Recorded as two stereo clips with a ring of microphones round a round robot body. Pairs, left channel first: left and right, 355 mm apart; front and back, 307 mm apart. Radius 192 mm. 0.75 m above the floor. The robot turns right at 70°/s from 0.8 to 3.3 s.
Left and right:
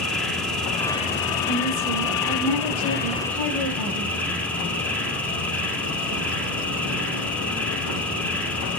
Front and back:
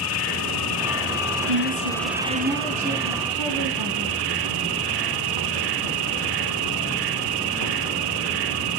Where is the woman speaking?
175° right, 4.5 m; by 4.1 s 45° right, 4.5 m.